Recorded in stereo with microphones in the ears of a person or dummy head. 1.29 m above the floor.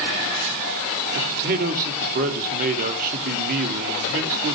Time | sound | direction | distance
1.1 | a man speaking | 45° right (ahead or behind) | 3 m